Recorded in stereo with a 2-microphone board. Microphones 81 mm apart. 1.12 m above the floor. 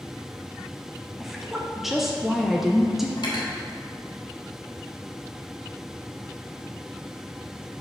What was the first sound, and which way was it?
A woman speaking, 5° right (ahead or behind).